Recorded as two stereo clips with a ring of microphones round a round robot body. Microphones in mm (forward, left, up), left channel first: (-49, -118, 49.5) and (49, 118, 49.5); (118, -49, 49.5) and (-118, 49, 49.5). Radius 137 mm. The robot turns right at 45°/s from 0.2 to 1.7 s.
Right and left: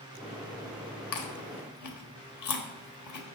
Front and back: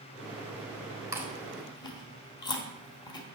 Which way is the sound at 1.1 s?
125° right.